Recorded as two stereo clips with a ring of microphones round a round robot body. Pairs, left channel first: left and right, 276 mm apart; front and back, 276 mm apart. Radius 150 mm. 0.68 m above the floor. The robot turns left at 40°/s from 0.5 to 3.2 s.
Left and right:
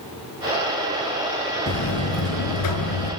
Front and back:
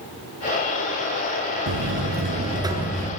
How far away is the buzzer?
About 5 m.